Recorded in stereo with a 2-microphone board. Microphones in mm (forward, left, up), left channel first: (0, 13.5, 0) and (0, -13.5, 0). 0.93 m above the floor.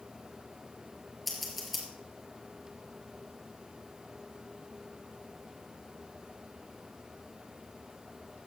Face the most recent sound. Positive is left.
turn(degrees=0)  # may be behind; listen again after turning